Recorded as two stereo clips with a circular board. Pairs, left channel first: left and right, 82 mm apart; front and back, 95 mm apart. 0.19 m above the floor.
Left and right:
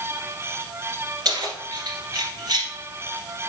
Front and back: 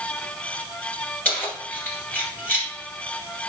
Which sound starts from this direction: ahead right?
Keys jangling, at 1.2 s.